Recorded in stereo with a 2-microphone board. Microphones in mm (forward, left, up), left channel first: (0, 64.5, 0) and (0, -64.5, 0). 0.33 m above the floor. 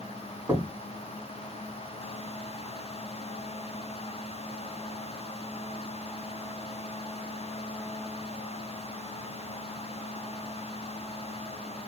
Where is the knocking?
20° right (ahead or behind), 2 m.